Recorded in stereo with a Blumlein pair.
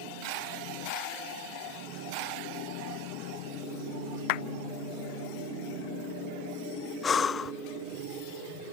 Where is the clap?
45° left.